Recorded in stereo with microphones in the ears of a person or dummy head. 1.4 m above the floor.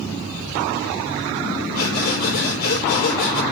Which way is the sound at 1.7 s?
55° left (ahead or behind).